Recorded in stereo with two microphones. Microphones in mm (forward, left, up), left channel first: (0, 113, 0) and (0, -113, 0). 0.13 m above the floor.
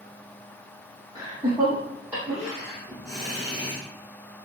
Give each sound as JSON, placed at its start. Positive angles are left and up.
{"t": 1.1, "sound": "laughter", "side_deg": -15, "distance_m": 4.0}